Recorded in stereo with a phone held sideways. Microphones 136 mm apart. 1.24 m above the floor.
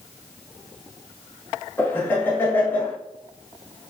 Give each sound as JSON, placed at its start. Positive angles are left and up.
{"t": 1.8, "sound": "laughter", "side_deg": 15, "distance_m": 1.1}